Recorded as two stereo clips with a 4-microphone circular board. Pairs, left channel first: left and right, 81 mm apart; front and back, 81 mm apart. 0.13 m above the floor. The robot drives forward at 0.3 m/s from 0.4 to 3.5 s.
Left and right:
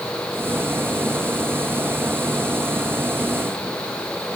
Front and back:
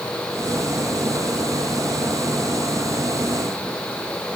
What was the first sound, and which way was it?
Only background noise.